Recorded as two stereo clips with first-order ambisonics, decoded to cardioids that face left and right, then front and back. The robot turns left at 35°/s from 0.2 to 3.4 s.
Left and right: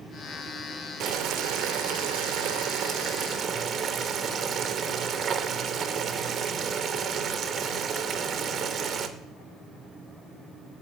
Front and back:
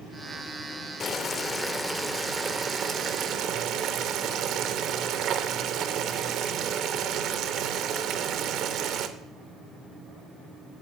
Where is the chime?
No chime in this recording.